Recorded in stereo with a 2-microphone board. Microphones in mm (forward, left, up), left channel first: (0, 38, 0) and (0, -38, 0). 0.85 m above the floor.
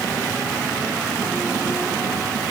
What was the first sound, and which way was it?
Only background noise.